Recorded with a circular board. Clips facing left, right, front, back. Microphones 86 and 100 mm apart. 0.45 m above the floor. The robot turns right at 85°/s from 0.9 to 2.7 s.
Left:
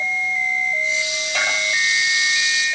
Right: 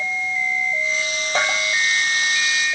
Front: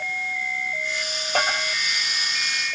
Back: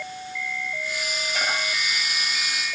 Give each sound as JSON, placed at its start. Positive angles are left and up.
{"t": 1.4, "sound": "a bell", "azimuth_deg": -30, "distance_m": 9.0}